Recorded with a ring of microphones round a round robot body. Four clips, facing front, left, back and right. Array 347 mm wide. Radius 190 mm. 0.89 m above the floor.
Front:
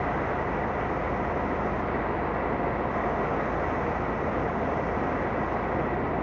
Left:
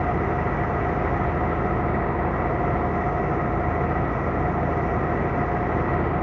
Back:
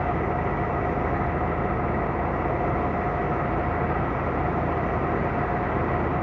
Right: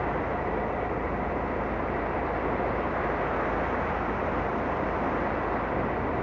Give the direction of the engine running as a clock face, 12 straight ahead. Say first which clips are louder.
Left 5 dB, back 2 dB; 8 o'clock.